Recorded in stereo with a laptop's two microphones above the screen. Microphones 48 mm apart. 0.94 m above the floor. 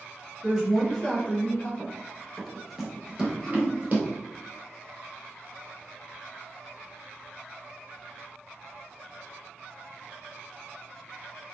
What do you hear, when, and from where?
0.4 s a woman speaking: 15° right (ahead or behind), 0.6 m; by 1.7 s 40° left (ahead or behind), 0.8 m
1.8 s running footsteps: 20° left (ahead or behind), 1.0 m; by 4.2 s 40° right (ahead or behind), 1.2 m
3.2 s throat clearing: 10° left (ahead or behind), 0.8 m